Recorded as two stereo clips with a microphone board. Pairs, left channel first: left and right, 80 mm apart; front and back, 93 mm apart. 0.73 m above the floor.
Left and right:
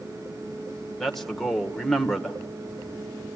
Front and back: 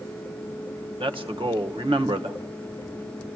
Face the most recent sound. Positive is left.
turn(degrees=180)